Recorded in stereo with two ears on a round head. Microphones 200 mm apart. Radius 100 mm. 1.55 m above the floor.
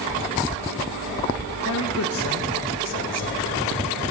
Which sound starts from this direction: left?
A man speaking, at 1.6 s.